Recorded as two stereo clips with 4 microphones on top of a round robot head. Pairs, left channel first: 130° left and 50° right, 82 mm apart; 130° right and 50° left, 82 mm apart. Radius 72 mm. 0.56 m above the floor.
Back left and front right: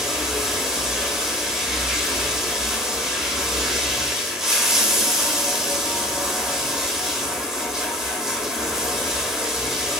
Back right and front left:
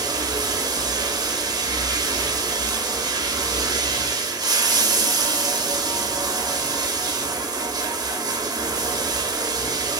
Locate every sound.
0.0 s running water: 35° left, 1.0 m